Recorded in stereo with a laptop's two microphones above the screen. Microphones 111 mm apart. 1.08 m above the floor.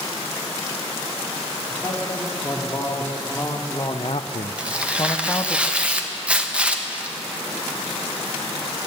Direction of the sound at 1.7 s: 10° left (ahead or behind).